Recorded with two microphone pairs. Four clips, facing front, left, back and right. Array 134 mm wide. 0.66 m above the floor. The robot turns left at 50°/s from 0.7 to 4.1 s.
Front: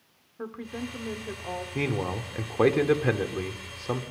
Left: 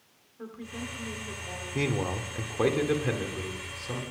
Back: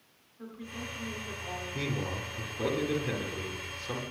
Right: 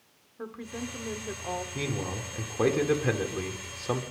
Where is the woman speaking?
25° right, 1.8 m; by 1.6 s 70° right, 1.8 m.